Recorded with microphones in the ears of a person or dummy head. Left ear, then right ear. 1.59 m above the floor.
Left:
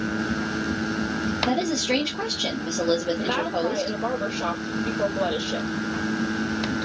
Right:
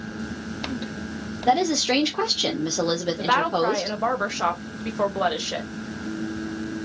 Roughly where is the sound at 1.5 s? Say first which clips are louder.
Right 7 dB; right.